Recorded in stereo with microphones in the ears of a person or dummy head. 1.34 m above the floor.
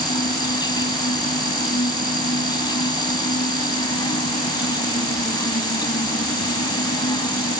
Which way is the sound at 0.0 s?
20° left (ahead or behind).